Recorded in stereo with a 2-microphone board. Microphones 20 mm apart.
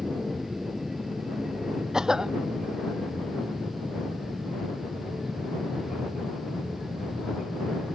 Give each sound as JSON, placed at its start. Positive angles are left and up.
{"t": 0.0, "sound": "an aircraft", "side_deg": -25}
{"t": 1.9, "sound": "a cough", "side_deg": -30}